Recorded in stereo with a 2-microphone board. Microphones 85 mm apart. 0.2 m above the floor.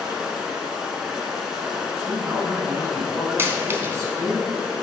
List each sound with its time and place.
0.0 s running water: 5° right (ahead or behind), 1.1 m
2.0 s a man speaking: 35° right (ahead or behind), 1.8 m
3.4 s a dropped coin: 30° right (ahead or behind), 0.7 m